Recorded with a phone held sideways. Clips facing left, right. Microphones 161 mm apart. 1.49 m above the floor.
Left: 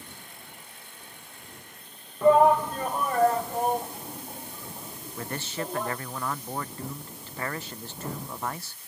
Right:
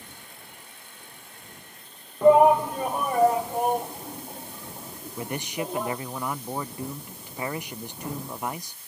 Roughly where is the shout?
Centre.